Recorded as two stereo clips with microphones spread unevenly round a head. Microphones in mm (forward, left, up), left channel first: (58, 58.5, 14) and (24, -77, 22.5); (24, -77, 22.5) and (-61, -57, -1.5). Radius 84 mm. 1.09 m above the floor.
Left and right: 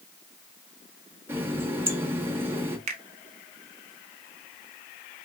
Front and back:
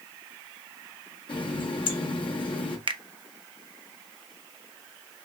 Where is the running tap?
30° right, 1.0 m.